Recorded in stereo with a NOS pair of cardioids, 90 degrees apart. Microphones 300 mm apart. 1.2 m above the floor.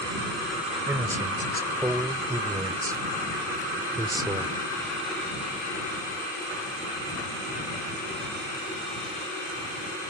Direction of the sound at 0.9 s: 10° right.